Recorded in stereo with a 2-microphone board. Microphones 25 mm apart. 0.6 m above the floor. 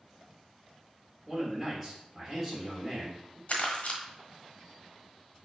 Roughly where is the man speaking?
Centre.